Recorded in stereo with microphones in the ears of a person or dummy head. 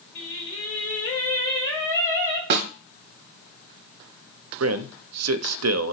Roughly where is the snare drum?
Right.